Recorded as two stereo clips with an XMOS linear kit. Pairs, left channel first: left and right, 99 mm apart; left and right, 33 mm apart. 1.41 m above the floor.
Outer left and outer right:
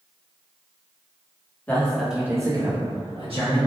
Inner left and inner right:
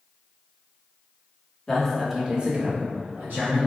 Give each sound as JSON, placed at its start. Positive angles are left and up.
{"t": 1.7, "sound": "a man speaking", "side_deg": 15, "distance_m": 1.0}